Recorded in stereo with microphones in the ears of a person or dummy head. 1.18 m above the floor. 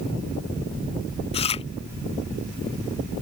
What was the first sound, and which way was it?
Chewing, 30° left (ahead or behind).